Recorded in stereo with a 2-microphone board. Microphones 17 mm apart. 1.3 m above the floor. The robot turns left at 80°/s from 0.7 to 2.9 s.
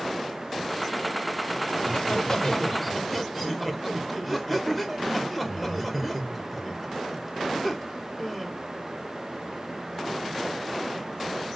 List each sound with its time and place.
1.8 s laughter: 85° left, 0.9 m; by 8.5 s 10° right, 0.9 m